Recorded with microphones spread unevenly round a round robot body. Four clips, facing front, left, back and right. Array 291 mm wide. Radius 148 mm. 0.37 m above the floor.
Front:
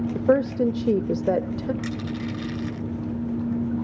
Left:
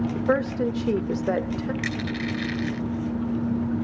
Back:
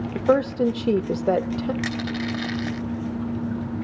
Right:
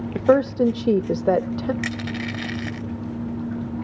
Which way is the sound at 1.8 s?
145° right.